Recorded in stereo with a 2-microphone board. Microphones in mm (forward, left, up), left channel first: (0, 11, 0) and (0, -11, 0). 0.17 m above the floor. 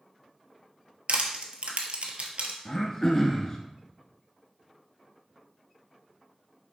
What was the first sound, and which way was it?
Crushing, 65° right (ahead or behind).